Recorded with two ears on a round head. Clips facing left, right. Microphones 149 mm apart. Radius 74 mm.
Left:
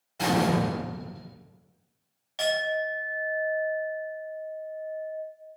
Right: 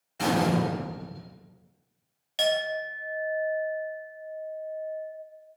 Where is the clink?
25° right (ahead or behind), 0.6 m.